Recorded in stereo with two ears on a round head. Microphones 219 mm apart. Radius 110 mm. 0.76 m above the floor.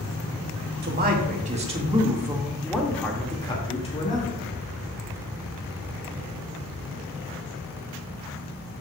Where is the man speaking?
45° right (ahead or behind), 1.6 m; by 4.4 s 35° left (ahead or behind), 1.9 m.